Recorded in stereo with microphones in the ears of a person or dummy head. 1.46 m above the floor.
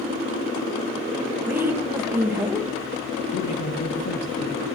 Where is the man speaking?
50° left (ahead or behind), 1.6 m.